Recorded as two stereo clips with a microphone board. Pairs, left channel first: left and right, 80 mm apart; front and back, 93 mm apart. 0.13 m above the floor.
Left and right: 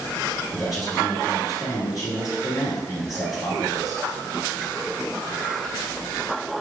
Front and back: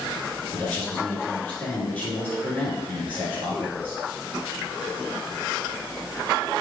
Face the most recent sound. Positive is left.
turn(degrees=70)